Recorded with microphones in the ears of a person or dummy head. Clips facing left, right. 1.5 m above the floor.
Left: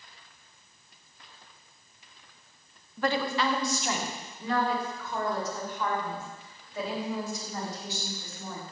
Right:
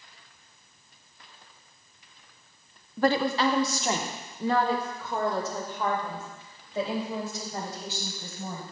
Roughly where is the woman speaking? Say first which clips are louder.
Right 4 dB; right.